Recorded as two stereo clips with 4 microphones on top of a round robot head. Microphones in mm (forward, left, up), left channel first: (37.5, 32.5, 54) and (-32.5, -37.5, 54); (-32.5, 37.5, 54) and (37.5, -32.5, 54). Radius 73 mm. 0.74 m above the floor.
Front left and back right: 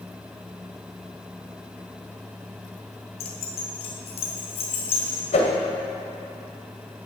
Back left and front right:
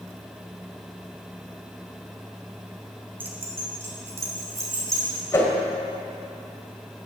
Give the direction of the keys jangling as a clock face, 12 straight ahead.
11 o'clock.